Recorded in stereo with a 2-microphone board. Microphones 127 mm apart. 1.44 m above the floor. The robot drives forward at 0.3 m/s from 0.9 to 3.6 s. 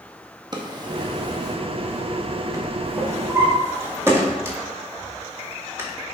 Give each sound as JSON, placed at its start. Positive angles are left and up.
{"t": 0.5, "sound": "a drawer", "side_deg": -35, "distance_m": 0.9}